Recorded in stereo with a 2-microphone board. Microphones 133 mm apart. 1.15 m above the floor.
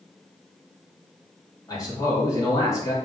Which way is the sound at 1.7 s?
25° left (ahead or behind).